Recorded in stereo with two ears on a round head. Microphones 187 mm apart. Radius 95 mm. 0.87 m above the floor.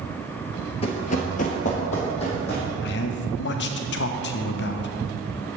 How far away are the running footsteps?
About 1.0 m.